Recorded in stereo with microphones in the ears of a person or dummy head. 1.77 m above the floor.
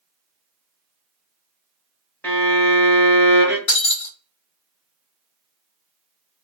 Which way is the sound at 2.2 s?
15° left (ahead or behind).